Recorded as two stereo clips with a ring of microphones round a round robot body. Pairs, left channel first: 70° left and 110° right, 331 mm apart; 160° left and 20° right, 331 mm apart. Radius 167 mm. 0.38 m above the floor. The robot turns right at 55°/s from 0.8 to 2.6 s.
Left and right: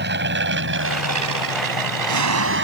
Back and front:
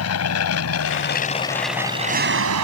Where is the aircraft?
165° right; by 2.6 s 60° right.